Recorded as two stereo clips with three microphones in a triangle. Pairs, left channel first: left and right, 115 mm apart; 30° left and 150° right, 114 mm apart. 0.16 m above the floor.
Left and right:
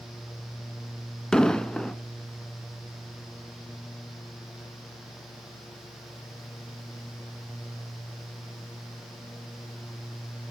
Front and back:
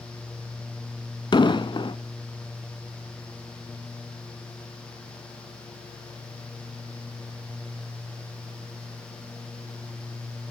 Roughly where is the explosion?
Ahead.